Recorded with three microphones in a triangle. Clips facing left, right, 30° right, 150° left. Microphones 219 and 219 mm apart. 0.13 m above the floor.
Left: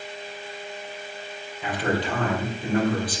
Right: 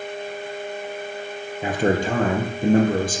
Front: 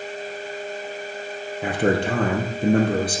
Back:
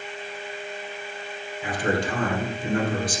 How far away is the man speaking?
About 3.5 m.